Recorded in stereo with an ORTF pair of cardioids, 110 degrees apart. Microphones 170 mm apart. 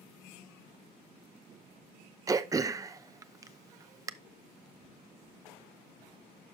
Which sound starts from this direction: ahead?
Throat clearing, at 2.3 s.